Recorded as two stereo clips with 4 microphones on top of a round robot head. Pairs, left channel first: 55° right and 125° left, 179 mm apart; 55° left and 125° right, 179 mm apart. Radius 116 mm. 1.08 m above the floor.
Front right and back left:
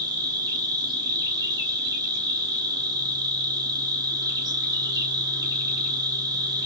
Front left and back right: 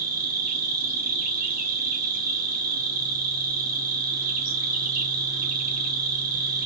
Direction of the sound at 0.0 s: 165° right.